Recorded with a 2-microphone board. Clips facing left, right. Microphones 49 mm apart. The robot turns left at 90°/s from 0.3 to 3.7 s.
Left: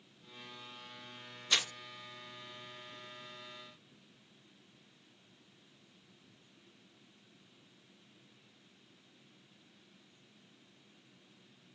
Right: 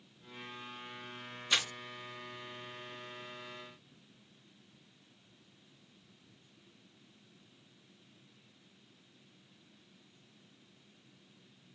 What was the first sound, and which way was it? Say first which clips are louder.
Crumpling: right 1 dB; 20° right (ahead or behind).